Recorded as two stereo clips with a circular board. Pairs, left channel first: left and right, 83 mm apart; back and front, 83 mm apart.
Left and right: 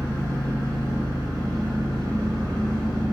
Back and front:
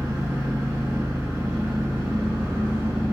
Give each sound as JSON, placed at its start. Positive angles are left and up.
{"t": 0.0, "sound": "an engine running", "azimuth_deg": -60, "distance_m": 1.1}